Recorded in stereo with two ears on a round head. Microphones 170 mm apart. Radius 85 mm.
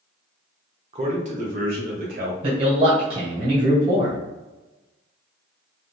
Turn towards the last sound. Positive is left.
turn(degrees=-30)  # may be behind; listen again after turning